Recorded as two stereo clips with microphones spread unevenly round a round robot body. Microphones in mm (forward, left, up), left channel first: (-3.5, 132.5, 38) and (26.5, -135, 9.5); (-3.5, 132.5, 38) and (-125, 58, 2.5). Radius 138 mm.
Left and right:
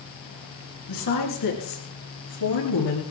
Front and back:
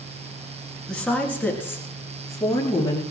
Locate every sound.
0.9 s a woman speaking: 120° left, 6.5 m; by 3.0 s 100° left, 7.5 m